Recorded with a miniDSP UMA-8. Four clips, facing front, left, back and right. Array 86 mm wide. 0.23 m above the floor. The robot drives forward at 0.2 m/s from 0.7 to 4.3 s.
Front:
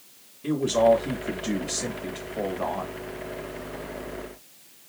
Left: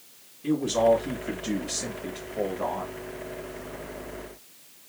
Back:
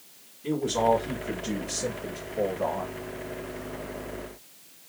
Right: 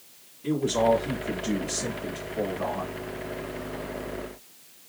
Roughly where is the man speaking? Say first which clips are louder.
Left 1 dB, front 4 dB; ahead.